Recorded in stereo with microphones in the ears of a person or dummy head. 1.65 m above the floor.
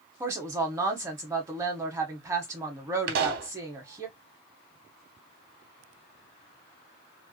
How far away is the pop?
About 0.9 m.